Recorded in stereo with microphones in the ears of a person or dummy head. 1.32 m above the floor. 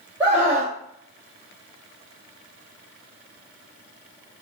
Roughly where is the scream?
Centre.